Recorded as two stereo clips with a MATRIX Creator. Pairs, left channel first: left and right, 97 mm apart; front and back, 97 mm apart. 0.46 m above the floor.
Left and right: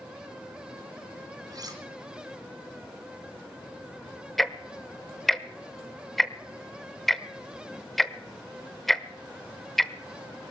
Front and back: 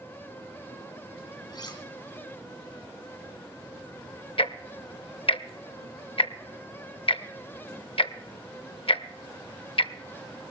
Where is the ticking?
5° left, 0.6 m.